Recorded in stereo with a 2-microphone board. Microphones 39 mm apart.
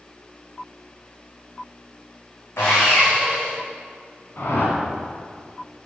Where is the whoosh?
70° left (ahead or behind), 1.8 m.